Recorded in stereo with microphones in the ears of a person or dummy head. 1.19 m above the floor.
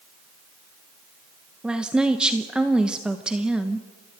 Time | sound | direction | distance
1.6 | a woman speaking | centre (ahead or behind) | 1.1 m